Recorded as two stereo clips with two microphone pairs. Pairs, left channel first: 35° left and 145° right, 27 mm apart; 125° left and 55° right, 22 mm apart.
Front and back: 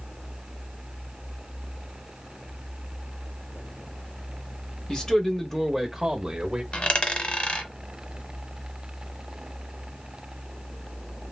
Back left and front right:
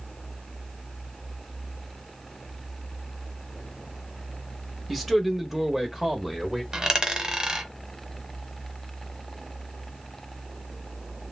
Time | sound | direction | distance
4.9 | a man speaking | 35° left | 1.0 m
6.7 | a dropped coin | straight ahead | 0.9 m